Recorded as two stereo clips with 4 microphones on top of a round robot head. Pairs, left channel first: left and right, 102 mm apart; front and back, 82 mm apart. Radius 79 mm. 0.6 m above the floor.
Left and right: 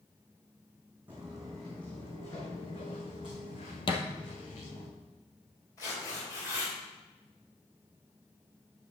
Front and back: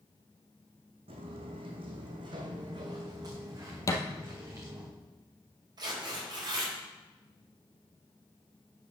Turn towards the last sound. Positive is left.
turn(degrees=150)